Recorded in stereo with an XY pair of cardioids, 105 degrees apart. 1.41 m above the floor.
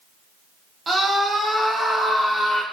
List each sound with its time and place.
0.9 s a scream: 35° right, 1.1 m; by 2.6 s 25° left, 1.3 m